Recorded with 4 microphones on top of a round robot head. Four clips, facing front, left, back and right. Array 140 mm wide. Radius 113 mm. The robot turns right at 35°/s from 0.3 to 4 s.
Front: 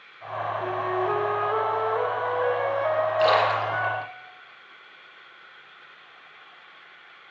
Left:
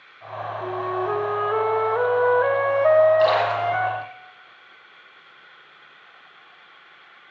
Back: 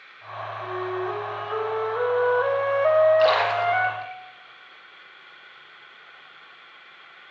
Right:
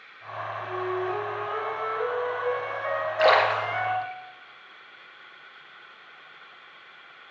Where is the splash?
90° right, 3.5 m; by 4.1 s 60° right, 3.5 m.